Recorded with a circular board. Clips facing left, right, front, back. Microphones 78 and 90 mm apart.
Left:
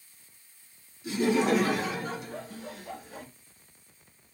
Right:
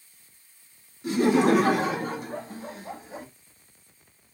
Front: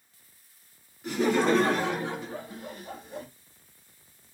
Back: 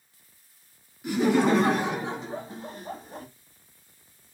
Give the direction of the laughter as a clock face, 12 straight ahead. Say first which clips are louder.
Right 5 dB, back 2 dB; 3 o'clock.